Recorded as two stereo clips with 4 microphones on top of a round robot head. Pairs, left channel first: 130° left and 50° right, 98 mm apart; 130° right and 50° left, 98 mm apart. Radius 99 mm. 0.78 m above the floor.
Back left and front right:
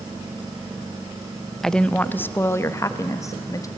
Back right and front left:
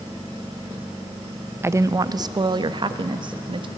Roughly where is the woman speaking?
Ahead left.